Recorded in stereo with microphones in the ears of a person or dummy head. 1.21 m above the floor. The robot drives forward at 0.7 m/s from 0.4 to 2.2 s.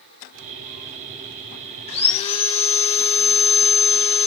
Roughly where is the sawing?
Left.